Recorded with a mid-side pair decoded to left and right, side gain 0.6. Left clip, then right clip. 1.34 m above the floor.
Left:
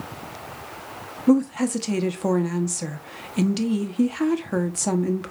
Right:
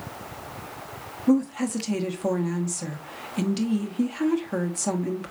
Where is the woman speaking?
20° left, 1.0 m.